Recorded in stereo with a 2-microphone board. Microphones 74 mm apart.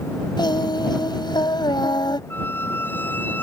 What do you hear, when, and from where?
0.4 s singing: 85° left
2.3 s a squeak: 25° left (ahead or behind)